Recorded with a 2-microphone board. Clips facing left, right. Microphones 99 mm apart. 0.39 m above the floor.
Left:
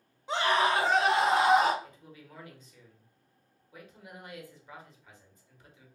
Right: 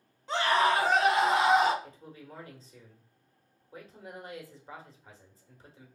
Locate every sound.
0.3 s a scream: 15° left (ahead or behind), 1.4 m; by 1.7 s 40° left (ahead or behind), 1.4 m
1.8 s a man speaking: 35° right (ahead or behind), 0.9 m